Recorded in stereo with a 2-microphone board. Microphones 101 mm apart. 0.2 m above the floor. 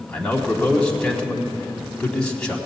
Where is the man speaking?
10° left (ahead or behind), 1.3 m.